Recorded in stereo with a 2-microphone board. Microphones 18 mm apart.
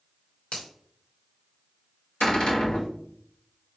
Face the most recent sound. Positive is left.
turn(degrees=60)  # may be behind; listen again after turning